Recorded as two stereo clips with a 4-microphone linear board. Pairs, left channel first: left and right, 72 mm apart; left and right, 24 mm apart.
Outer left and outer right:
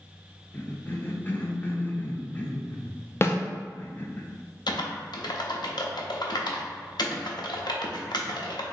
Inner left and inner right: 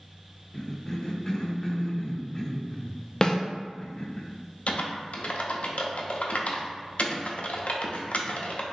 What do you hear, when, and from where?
0.5 s a cough: 25° left (ahead or behind), 0.5 m
3.2 s a snare drum: 35° left (ahead or behind), 0.5 m
4.7 s typing on a keyboard: 75° left (ahead or behind), 0.6 m